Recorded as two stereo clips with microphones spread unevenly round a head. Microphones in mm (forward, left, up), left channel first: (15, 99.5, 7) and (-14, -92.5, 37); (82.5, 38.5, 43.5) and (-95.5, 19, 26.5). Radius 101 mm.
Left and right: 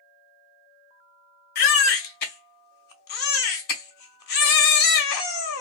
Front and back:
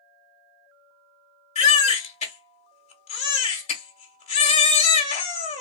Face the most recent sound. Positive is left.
turn(degrees=45)